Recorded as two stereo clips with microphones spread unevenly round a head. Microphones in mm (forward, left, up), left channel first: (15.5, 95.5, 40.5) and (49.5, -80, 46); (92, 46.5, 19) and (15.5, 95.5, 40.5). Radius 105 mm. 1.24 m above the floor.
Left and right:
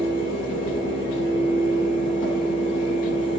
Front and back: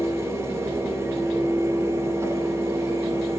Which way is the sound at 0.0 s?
85° left.